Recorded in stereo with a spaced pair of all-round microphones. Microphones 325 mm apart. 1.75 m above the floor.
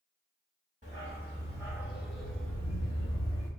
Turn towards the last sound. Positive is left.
turn(degrees=20)  # may be behind; listen again after turning